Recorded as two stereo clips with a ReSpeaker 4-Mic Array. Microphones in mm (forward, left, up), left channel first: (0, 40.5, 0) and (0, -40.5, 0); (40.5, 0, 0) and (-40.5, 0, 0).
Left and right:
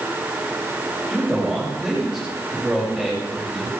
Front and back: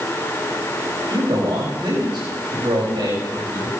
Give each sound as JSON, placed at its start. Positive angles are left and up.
{"t": 1.1, "sound": "a man speaking", "azimuth_deg": 180, "distance_m": 6.5}